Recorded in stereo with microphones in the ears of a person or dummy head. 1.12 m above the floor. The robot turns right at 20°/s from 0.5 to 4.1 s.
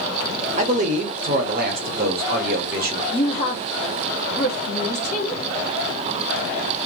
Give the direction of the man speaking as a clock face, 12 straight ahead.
5 o'clock.